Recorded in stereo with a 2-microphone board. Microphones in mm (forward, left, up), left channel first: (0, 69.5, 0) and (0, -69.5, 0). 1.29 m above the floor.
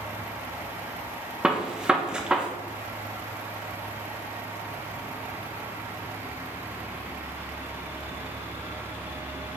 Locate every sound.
1.4 s a gunshot: 5° right (ahead or behind), 0.6 m